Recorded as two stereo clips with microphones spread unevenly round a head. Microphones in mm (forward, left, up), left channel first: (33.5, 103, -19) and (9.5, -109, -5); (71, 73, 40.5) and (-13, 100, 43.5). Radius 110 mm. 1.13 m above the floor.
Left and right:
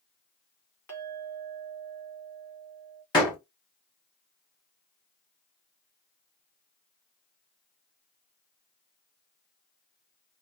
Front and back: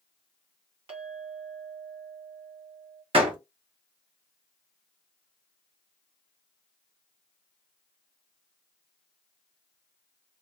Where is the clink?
165° left, 1.8 m.